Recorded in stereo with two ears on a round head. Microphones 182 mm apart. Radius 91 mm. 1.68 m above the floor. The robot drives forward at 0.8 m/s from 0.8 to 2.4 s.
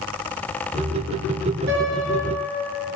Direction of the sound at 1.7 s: 50° right (ahead or behind).